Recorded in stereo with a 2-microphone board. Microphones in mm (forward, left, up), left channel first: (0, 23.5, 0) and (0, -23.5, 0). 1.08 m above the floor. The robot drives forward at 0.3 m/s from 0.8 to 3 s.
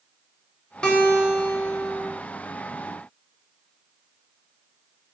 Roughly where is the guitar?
Centre.